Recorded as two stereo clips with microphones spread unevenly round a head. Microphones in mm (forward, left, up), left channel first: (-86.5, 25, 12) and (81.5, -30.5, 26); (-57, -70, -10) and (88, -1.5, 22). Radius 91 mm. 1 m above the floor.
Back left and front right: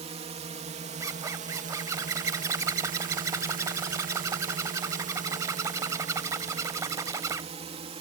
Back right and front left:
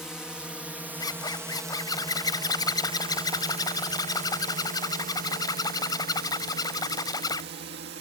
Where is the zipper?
85° right.